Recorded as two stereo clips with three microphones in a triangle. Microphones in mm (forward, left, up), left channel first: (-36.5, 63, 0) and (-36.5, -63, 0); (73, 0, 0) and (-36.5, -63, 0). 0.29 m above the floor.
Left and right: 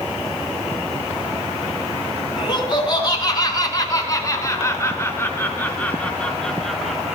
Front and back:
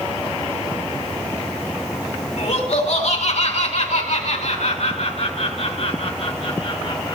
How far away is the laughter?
About 4.5 m.